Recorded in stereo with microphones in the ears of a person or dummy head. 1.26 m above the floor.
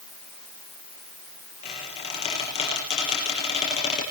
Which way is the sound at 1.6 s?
35° left (ahead or behind).